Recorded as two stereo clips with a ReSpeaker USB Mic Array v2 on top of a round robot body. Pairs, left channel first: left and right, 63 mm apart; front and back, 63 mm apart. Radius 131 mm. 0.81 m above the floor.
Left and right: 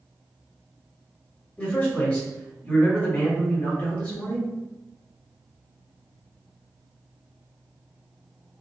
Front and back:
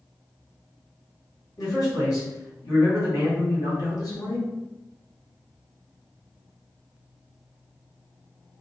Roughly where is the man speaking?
Ahead.